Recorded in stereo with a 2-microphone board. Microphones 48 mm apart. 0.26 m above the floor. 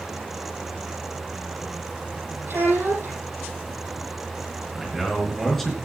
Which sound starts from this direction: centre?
A man speaking, at 4.8 s.